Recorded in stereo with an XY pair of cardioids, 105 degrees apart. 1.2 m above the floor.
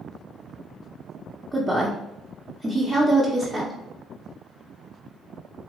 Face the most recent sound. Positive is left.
turn(degrees=-10)